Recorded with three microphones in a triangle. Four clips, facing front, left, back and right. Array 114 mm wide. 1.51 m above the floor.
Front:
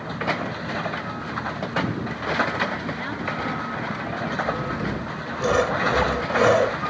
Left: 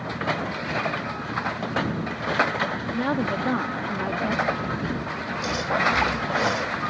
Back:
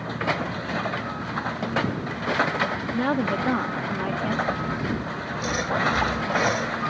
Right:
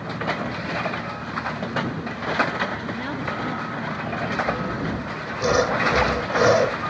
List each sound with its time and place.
2.9 s a woman speaking: 145° left; by 4.4 s 125° left
4.5 s sawing: 50° right